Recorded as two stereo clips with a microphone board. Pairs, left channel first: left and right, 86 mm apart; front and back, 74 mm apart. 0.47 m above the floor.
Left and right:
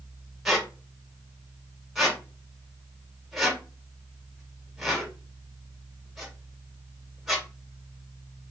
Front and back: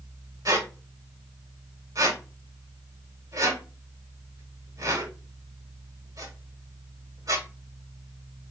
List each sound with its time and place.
0.5 s a squeak: 175° right, 1.1 m